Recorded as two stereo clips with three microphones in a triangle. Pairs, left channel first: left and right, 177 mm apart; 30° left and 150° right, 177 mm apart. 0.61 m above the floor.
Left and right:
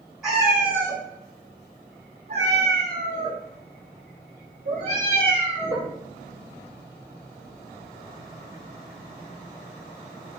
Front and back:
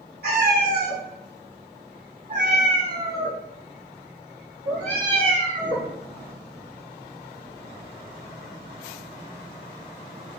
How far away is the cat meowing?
About 1.5 m.